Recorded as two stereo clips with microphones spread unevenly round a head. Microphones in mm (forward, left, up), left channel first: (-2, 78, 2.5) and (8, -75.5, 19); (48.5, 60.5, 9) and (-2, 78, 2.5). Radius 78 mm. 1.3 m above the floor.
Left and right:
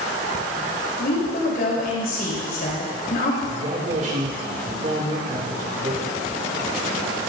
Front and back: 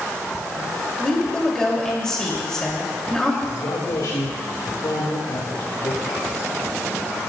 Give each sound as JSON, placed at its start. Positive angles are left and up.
{"t": 1.0, "sound": "a woman speaking", "azimuth_deg": 60, "distance_m": 3.5}
{"t": 3.5, "sound": "a man speaking", "azimuth_deg": -40, "distance_m": 2.5}